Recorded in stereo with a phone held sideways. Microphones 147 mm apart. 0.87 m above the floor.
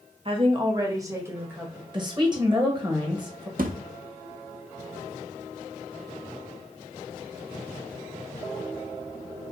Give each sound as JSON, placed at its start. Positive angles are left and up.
{"t": 0.2, "sound": "a woman speaking", "side_deg": -40, "distance_m": 0.8}
{"t": 1.9, "sound": "a woman speaking", "side_deg": -30, "distance_m": 1.2}
{"t": 3.6, "sound": "a thud", "side_deg": -70, "distance_m": 0.6}